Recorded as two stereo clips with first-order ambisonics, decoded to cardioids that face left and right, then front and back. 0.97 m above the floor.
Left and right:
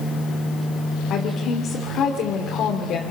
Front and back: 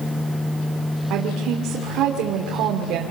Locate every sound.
1.1 s a woman speaking: 140° left, 2.5 m